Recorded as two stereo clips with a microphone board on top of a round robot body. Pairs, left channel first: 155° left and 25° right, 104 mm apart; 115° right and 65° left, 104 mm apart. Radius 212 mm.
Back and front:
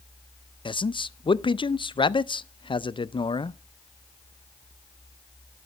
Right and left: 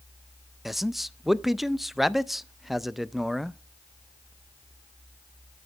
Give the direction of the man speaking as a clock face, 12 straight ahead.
7 o'clock.